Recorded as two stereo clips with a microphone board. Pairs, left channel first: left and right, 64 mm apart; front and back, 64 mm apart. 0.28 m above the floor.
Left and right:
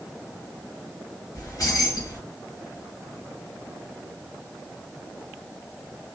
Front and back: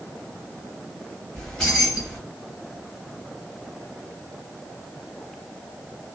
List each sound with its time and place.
1.4 s keys jangling: 70° left, 1.8 m